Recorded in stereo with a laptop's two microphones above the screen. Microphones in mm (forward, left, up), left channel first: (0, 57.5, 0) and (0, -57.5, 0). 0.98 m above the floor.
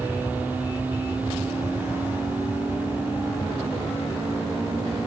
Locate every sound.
0.0 s an aircraft: 15° right (ahead or behind)